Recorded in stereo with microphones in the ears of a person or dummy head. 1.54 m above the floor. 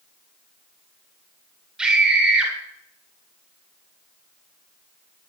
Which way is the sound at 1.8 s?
5° right (ahead or behind).